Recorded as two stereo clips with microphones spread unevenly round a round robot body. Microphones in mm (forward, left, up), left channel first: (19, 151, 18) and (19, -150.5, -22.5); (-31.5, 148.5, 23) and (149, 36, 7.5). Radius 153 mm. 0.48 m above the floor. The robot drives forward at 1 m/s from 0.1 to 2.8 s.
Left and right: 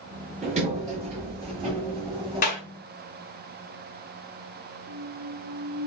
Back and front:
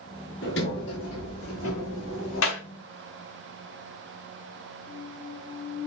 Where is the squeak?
145° right, 1.0 m.